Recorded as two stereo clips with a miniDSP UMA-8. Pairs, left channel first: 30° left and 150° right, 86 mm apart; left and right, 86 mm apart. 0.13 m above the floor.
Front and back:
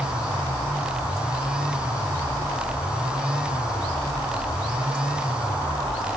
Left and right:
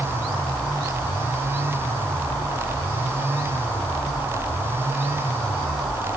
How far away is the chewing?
No chewing in this recording.